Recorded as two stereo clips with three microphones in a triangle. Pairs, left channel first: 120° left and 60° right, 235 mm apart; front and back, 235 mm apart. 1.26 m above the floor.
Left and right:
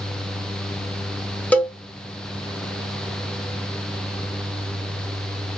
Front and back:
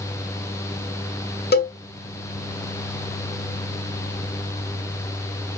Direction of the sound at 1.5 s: 35° left.